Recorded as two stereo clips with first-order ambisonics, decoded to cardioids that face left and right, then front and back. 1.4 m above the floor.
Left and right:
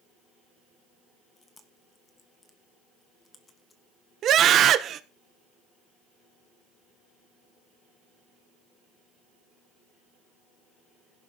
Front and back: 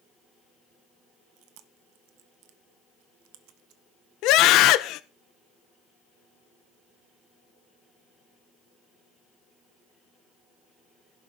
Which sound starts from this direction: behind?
Chewing, at 1.4 s.